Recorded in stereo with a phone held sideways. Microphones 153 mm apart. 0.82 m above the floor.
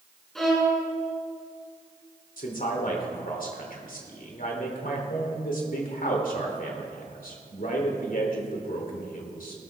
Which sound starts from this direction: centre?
A violin, at 0.3 s.